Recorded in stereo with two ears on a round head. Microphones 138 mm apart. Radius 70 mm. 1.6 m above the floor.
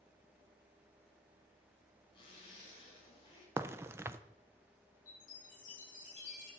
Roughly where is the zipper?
Left.